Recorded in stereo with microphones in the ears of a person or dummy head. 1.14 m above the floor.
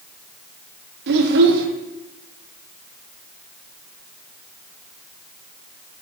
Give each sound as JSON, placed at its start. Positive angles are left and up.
{"t": 1.1, "sound": "a child speaking", "side_deg": -65, "distance_m": 1.4}